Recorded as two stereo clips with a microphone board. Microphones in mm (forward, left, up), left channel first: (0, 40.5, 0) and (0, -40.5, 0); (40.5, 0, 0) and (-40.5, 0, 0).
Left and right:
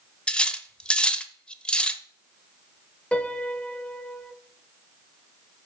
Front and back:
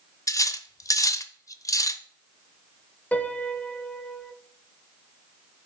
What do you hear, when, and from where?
0.3 s cutlery clinking: 15° left, 0.5 m
3.1 s a piano: 35° left, 0.7 m